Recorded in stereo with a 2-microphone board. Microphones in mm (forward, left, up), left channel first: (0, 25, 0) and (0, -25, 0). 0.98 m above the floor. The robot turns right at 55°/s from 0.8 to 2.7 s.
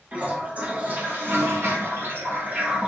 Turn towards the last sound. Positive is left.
turn(degrees=-35)